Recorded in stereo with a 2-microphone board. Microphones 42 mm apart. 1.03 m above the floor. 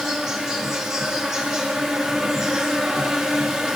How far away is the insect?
About 1.4 m.